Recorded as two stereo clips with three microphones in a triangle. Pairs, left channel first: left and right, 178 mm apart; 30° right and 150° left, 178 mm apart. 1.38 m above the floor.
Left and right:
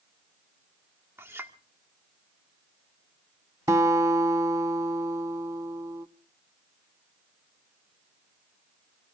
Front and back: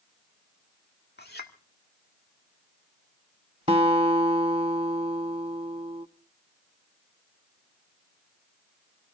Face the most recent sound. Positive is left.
turn(degrees=-160)